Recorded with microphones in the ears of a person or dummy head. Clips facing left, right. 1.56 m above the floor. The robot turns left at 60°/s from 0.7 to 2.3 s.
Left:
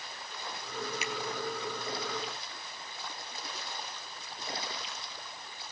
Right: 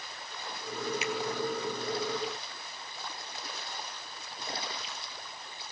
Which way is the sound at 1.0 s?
85° left.